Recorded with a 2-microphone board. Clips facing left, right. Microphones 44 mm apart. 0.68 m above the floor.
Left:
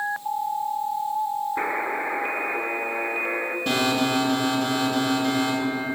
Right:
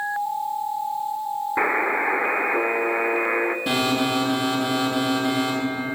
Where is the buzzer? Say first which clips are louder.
Right 4 dB; 35° right (ahead or behind), 0.9 m.